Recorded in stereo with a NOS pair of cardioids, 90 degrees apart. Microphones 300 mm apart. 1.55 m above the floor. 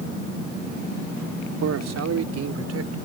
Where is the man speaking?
60° right; by 3.0 s 50° right.